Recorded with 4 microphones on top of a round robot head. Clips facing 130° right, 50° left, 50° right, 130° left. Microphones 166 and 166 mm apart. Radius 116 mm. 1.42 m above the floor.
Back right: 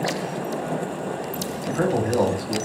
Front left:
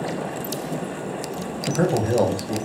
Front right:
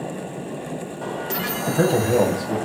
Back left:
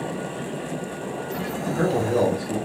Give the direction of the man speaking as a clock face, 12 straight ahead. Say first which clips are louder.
Front left 1 dB, front right 4 dB; 12 o'clock.